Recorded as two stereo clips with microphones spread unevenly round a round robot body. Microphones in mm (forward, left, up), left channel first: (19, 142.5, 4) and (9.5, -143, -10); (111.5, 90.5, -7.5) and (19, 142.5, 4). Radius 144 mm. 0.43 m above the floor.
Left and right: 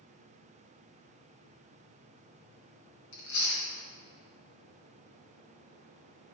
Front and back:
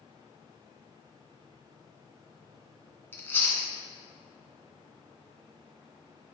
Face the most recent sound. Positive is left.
turn(degrees=40)